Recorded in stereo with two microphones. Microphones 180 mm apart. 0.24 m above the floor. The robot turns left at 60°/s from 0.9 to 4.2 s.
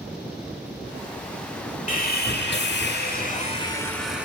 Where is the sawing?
130° left, 0.5 m; by 4.2 s 5° right, 0.5 m.